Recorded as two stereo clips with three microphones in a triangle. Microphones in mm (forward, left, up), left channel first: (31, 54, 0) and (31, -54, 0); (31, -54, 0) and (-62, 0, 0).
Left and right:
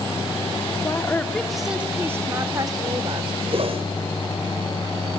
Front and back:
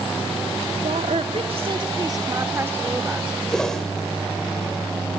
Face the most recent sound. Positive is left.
turn(degrees=-115)